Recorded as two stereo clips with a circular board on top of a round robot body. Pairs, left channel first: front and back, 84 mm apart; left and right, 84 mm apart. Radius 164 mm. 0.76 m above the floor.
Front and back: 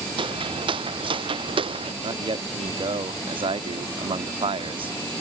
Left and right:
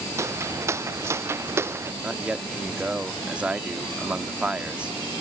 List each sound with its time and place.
0.2 s footsteps: 150° right; by 1.9 s 155° right
2.0 s a man speaking: 165° right